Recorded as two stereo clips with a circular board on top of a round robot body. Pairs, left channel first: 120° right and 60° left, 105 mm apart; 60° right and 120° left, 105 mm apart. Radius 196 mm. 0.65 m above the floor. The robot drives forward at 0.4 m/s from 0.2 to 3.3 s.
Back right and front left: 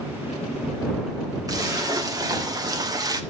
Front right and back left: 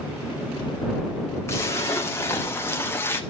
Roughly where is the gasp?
I don't hear a gasp.